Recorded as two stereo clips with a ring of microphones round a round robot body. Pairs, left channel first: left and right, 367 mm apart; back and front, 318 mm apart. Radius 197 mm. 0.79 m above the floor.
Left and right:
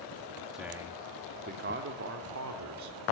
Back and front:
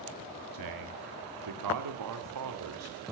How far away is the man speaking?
About 1.9 m.